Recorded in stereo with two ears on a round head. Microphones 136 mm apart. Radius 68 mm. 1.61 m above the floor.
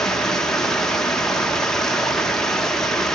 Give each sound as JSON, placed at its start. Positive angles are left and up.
{"t": 0.0, "sound": "running water", "side_deg": 5, "distance_m": 0.9}